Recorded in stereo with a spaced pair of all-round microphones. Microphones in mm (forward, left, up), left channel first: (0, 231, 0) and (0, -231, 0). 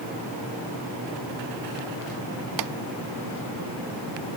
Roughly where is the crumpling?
I don't hear crumpling.